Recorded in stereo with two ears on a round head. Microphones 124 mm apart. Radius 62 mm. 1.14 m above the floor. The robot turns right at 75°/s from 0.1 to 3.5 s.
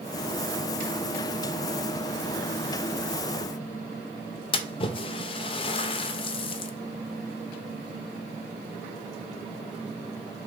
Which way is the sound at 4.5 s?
40° left (ahead or behind).